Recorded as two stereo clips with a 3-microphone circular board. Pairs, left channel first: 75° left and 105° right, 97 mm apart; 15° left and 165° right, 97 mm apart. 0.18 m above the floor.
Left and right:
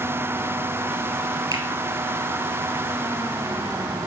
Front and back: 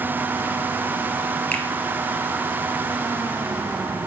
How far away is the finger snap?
About 2 m.